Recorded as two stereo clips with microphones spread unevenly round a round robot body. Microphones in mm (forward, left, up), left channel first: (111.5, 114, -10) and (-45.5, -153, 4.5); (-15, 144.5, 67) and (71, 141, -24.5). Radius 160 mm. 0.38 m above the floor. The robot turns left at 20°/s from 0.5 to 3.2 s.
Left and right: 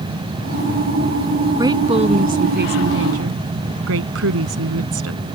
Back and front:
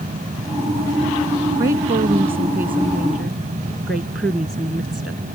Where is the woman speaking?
40° right; by 5.2 s 75° right.